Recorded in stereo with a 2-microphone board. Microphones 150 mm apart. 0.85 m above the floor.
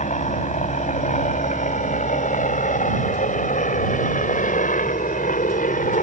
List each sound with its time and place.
0.0 s a helicopter: 55° left (ahead or behind); by 6.0 s 65° left (ahead or behind)